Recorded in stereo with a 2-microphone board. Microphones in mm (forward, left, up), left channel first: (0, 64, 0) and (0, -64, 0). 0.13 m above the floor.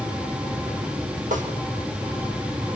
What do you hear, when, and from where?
1.3 s a snare drum: 80° right, 6 m